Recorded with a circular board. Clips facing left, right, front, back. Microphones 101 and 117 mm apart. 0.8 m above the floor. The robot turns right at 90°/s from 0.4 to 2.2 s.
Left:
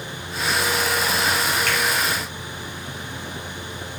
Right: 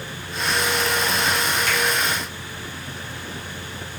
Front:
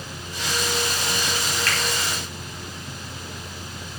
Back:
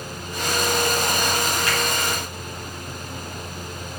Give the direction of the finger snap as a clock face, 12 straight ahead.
8 o'clock.